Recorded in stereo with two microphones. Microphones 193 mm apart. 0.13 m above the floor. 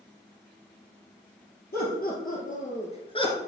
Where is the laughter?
55° left (ahead or behind), 3.5 m; by 3.4 s 20° left (ahead or behind), 1.9 m.